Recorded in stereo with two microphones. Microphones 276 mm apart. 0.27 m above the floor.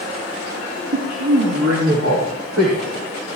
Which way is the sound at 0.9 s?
80° right.